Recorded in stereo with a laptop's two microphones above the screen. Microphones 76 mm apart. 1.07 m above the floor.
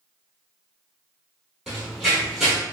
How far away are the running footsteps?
About 1.3 m.